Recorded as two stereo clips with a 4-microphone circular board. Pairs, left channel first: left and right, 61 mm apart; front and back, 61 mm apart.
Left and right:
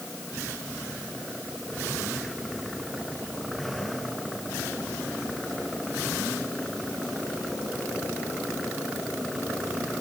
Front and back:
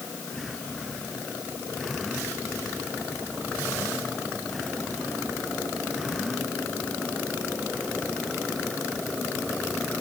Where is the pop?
No pop in this recording.